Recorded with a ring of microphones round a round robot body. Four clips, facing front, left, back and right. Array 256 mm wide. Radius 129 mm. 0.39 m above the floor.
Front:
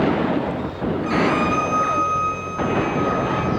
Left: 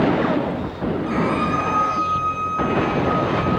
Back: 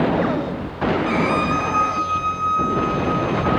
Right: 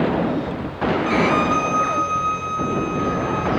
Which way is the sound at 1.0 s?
70° right.